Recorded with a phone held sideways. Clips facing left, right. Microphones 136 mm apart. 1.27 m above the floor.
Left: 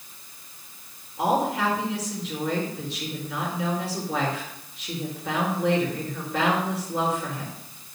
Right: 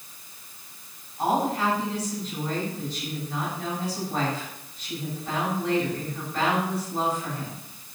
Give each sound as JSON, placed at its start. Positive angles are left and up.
{"t": 1.2, "sound": "a woman speaking", "side_deg": 80, "distance_m": 4.5}